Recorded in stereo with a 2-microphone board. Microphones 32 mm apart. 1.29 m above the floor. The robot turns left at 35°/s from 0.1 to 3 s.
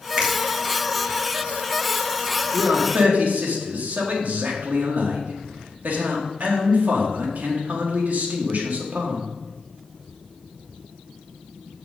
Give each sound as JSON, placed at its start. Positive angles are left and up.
{"t": 0.2, "sound": "a finger snap", "side_deg": -35, "distance_m": 1.7}
{"t": 2.5, "sound": "a man speaking", "side_deg": -70, "distance_m": 2.5}